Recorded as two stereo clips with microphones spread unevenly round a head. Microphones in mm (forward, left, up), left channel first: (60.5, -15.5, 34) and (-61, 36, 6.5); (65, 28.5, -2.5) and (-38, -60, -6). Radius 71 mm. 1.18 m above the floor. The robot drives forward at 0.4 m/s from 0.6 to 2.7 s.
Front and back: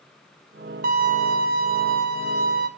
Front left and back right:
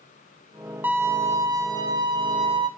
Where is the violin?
140° left, 0.9 m; by 2.7 s 160° left, 1.5 m.